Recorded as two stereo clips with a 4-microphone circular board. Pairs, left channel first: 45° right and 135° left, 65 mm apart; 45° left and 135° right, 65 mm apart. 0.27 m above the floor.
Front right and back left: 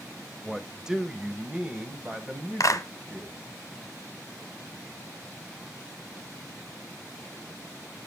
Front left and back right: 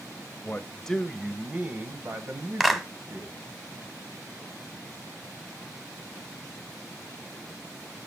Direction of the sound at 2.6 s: 50° right.